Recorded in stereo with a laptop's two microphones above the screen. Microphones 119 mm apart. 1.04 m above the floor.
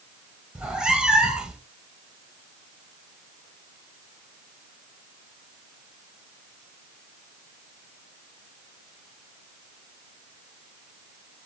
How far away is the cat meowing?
About 1.1 m.